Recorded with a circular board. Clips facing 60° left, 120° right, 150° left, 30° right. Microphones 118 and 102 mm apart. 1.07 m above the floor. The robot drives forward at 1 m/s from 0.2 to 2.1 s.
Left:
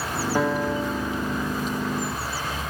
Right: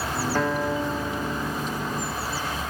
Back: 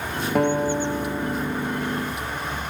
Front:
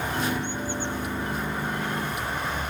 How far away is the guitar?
About 0.5 m.